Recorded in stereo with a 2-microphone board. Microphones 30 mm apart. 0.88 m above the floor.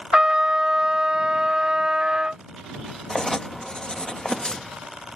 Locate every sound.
0.1 s a trumpet: 35° right (ahead or behind)
3.1 s writing: 30° left (ahead or behind)